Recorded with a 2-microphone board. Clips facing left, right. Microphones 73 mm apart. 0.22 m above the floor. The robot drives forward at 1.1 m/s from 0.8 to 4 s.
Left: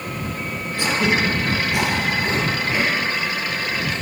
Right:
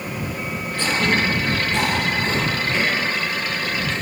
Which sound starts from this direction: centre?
Throat clearing, at 0.8 s.